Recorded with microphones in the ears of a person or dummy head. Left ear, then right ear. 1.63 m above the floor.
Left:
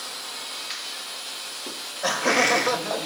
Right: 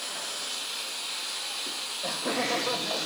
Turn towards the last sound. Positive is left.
turn(degrees=75)  # may be behind; listen again after turning